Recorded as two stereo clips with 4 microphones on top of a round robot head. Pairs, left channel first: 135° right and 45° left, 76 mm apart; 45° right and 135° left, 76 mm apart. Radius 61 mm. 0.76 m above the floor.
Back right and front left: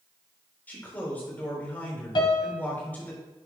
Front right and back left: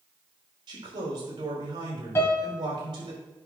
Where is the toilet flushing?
No toilet flushing in this recording.